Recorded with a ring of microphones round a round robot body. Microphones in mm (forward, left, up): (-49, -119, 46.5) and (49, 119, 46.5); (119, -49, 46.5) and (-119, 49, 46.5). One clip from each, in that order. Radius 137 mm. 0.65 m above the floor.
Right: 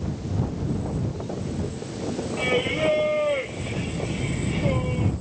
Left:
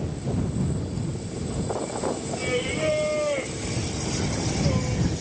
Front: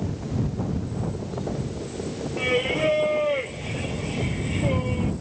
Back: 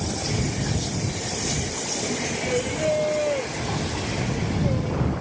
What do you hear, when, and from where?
2.4 s singing: 45° right